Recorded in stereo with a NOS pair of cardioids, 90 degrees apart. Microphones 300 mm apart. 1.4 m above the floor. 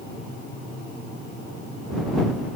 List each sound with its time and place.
Only background noise.